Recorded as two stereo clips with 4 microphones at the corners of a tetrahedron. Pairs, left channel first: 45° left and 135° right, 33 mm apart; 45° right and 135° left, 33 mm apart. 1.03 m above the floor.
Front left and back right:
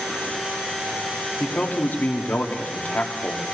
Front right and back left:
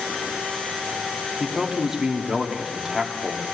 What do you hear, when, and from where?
1.4 s a man speaking: 55° left, 2 m